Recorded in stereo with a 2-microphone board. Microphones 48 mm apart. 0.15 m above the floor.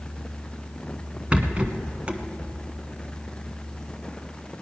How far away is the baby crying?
I don't hear a baby crying.